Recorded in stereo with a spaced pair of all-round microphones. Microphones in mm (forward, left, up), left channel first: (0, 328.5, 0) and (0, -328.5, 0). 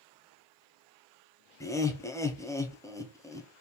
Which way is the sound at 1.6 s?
5° left (ahead or behind).